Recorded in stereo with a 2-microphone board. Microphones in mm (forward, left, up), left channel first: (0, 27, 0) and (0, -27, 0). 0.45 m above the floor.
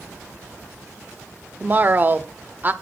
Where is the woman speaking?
35° right (ahead or behind), 0.9 m.